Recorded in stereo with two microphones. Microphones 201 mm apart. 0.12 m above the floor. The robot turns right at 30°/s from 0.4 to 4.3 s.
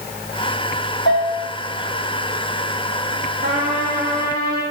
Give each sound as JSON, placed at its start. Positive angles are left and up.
{"t": 1.1, "sound": "a bell", "side_deg": 65, "distance_m": 2.5}
{"t": 3.4, "sound": "a trumpet", "side_deg": -70, "distance_m": 3.5}